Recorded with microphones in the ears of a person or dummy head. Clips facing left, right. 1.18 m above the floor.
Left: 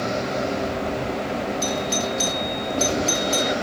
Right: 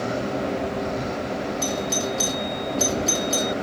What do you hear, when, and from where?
1.6 s a doorbell: 10° right (ahead or behind)